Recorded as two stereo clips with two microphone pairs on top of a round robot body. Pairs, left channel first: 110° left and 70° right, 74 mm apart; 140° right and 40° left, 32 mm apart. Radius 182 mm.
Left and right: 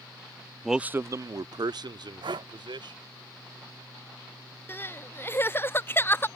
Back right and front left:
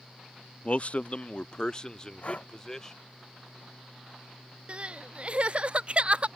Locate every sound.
0.6 s a man speaking: 160° right; by 3.0 s 65° right
2.2 s breathing: 90° right
4.7 s crying: 70° left